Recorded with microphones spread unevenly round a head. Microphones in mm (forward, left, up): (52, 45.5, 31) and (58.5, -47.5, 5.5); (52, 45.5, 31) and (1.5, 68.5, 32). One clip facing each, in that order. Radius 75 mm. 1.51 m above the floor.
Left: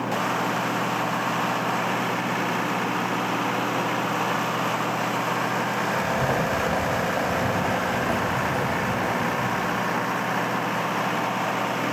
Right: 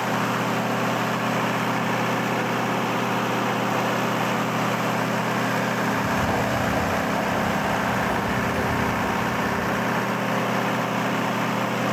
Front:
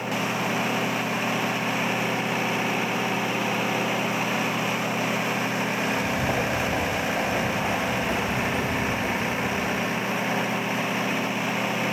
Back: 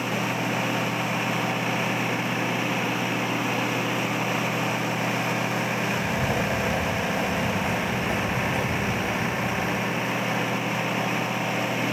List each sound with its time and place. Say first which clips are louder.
5.8 s footsteps: right 1 dB, front 1 dB; 40° left, 3.5 m; by 10.1 s 70° left, 7 m